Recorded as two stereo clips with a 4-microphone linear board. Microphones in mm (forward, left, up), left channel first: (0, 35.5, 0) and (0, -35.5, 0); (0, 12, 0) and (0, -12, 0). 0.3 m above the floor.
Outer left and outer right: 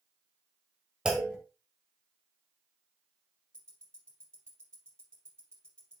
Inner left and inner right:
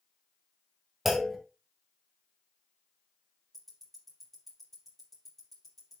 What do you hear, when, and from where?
1.1 s a clunk: 10° right (ahead or behind), 1.3 m
3.5 s ticking: 10° left (ahead or behind), 3.5 m